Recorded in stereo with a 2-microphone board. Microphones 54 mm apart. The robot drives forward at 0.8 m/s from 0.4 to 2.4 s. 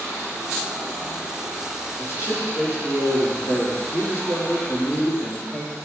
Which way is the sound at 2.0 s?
50° left (ahead or behind).